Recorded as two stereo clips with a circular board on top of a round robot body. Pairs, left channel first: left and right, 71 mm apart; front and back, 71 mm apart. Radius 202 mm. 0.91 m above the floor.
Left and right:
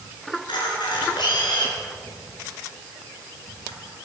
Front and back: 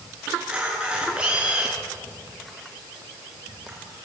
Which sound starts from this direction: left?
A camera shutter, at 0.3 s.